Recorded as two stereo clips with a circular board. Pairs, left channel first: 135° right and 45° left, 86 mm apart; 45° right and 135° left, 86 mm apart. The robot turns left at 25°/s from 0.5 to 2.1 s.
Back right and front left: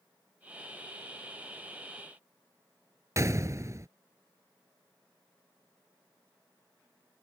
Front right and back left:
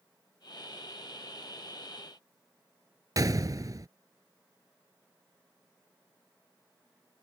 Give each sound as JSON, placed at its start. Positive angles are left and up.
{"t": 3.2, "sound": "a gunshot", "azimuth_deg": 95}